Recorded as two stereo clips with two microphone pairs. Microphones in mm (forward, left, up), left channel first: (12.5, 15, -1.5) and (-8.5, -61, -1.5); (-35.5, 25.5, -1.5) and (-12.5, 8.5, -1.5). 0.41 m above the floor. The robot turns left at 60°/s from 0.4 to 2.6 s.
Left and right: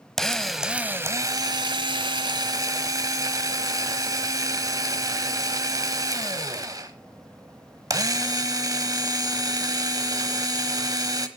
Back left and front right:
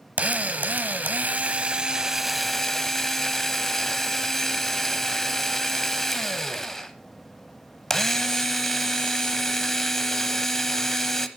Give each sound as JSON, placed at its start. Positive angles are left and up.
{"t": 0.2, "sound": "a drill", "azimuth_deg": -10, "distance_m": 0.9}